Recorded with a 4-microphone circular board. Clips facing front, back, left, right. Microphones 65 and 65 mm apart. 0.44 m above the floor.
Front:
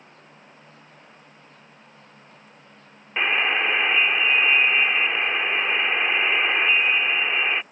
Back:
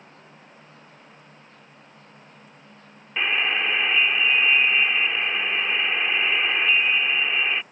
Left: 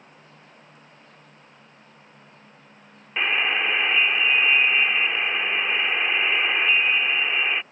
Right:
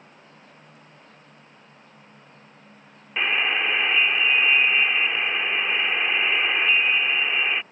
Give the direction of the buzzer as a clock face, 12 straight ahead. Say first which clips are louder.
Front 2 dB, even; 12 o'clock.